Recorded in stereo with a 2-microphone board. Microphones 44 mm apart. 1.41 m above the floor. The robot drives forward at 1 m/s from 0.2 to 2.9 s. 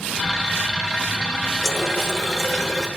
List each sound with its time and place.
1.6 s a running tap: 10° left (ahead or behind), 2 m